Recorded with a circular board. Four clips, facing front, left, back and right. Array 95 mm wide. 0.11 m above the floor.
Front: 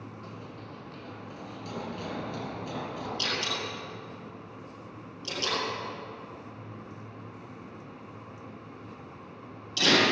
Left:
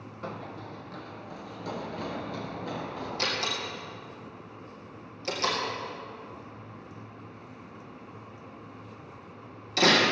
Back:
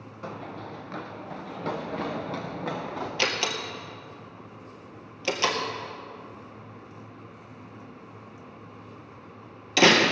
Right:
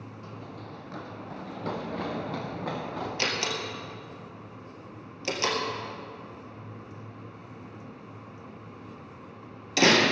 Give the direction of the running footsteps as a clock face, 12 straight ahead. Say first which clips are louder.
Left 6 dB, back 6 dB; 8 o'clock.